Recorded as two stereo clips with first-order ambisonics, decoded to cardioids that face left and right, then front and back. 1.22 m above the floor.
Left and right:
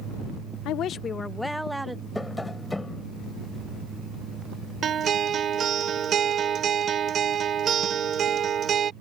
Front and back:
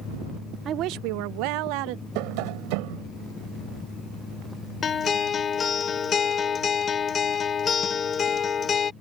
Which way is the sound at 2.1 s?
175° left.